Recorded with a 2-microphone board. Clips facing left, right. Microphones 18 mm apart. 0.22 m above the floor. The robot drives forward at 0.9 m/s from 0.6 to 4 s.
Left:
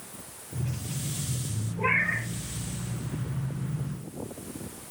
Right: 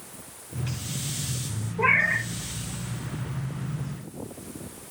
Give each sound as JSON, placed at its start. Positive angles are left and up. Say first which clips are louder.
{"t": 1.8, "sound": "a cat meowing", "louder": "right 4 dB", "side_deg": -80, "distance_m": 4.5}